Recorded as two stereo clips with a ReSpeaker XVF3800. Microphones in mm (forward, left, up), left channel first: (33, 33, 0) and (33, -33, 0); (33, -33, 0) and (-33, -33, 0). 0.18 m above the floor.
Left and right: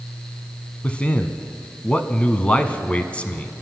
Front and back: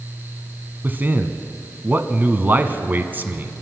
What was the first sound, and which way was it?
A man speaking, 145° left.